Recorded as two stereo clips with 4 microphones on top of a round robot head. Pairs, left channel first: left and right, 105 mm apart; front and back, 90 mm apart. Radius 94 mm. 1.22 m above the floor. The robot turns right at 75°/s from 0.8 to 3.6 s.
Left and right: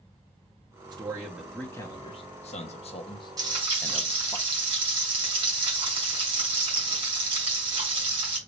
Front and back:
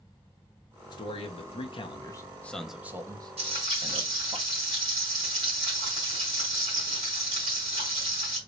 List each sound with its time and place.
0.9 s a man speaking: 40° right, 1.1 m; by 4.4 s 160° left, 1.1 m
3.4 s frying: 140° right, 2 m; by 8.4 s 125° right, 2 m